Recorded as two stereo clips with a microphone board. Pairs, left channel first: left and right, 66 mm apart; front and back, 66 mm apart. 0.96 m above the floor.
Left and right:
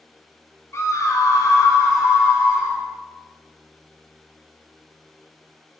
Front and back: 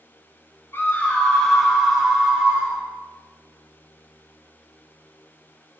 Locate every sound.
0.7 s a scream: 50° left, 0.7 m; by 2.8 s 110° left, 1.4 m